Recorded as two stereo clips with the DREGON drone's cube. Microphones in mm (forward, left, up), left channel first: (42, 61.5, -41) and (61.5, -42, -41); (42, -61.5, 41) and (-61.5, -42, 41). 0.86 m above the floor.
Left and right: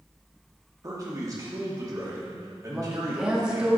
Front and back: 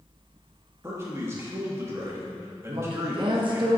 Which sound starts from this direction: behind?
A woman speaking, at 2.7 s.